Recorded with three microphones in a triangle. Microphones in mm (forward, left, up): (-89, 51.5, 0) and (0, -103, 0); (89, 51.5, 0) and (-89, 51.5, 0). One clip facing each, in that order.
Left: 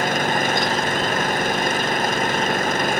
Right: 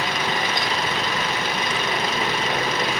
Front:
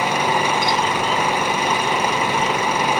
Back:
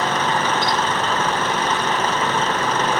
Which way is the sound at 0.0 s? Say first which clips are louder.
Left 4 dB, front 1 dB; 80° left.